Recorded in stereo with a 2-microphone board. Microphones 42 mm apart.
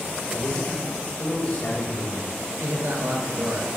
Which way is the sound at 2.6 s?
75° right (ahead or behind).